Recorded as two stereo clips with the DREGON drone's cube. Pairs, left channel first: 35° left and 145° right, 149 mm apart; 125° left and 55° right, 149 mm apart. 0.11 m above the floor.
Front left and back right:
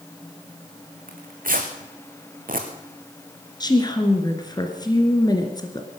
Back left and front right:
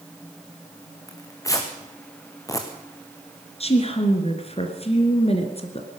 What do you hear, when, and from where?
1.1 s tearing paper: 165° right, 1.9 m
3.6 s a woman speaking: 90° left, 2 m